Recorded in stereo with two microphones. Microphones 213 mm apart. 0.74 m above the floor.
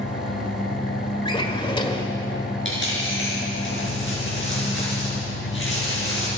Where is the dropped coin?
60° left (ahead or behind), 5.5 m.